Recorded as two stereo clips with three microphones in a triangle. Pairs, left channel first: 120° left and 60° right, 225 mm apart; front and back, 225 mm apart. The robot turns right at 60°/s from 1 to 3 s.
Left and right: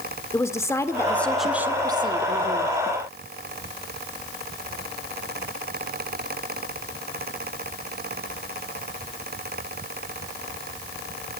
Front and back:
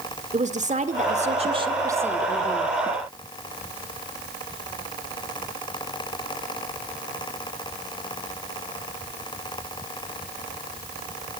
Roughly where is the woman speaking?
Behind.